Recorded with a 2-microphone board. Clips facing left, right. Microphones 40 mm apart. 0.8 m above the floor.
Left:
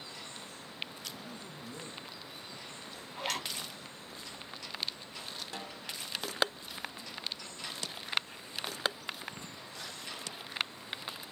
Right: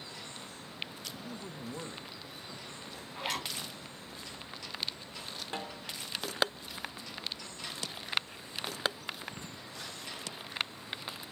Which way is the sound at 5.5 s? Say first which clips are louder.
Right 3 dB; 35° right (ahead or behind).